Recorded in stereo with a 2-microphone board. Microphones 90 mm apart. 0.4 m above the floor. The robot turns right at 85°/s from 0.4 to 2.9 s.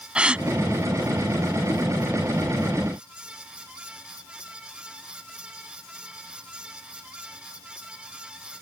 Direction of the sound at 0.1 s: 10° right (ahead or behind).